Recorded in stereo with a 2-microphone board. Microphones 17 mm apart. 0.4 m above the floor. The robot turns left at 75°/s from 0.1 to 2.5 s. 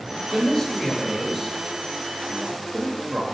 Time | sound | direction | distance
0.3 | a man speaking | 40° left (ahead or behind) | 1.5 m